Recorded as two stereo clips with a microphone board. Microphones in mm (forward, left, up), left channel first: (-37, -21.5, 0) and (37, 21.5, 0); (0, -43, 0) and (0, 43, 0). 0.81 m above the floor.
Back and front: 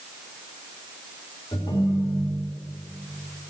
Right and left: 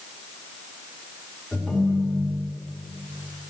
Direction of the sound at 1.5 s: 175° left.